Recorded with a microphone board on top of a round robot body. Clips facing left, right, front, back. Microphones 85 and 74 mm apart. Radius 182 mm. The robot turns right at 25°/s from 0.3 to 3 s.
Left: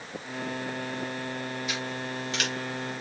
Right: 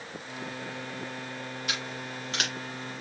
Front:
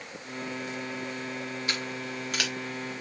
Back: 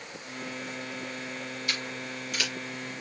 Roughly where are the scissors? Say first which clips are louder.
Left 3 dB, front 2 dB; ahead right.